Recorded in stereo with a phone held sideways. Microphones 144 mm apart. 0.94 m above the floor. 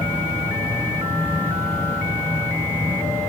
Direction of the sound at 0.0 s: 15° left (ahead or behind).